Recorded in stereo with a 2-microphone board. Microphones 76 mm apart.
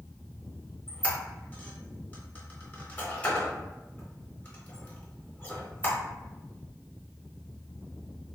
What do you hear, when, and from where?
0.9 s a squeak: 25° left (ahead or behind), 0.8 m